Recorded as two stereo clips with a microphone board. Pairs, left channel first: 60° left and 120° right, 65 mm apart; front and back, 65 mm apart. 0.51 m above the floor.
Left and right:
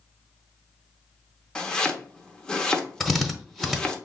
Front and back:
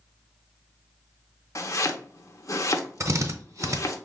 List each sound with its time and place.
1.6 s chopping: 15° right, 0.6 m
3.0 s a drill: 150° left, 0.7 m